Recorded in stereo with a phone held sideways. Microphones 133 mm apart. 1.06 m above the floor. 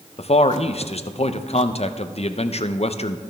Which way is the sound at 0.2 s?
50° left (ahead or behind).